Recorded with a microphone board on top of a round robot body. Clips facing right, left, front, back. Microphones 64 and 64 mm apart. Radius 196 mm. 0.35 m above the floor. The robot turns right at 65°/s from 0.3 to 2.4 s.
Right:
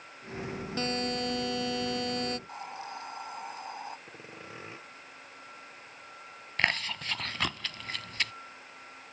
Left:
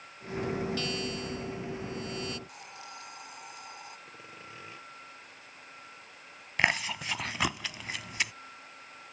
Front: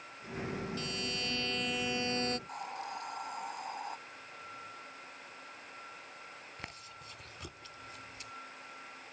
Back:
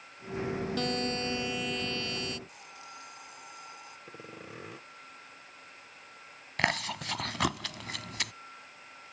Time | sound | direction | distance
0.8 | a buzzer | 150° right | ?
2.5 | a hiss | 35° right | ?
4.1 | sawing | 155° right | ?
6.6 | chewing | 170° left | ?